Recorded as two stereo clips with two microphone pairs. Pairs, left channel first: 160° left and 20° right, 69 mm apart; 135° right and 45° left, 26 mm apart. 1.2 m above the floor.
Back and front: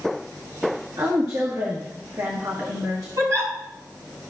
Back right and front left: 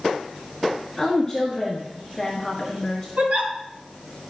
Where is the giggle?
20° left, 4.5 m.